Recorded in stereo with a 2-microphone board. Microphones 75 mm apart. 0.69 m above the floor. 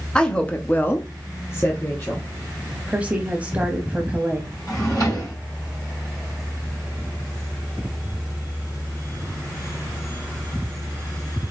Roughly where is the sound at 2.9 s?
Centre.